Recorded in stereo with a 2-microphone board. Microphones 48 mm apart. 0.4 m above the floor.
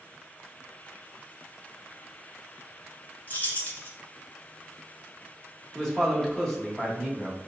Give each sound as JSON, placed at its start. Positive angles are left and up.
{"t": 3.3, "sound": "keys jangling", "side_deg": 40, "distance_m": 0.9}
{"t": 5.8, "sound": "a man speaking", "side_deg": 10, "distance_m": 1.0}